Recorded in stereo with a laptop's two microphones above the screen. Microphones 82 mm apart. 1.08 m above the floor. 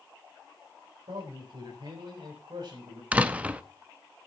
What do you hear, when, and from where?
1.1 s a man speaking: 85° right, 5 m; by 3.0 s 60° right (ahead or behind), 5.5 m
3.1 s a door slam: 15° right (ahead or behind), 0.8 m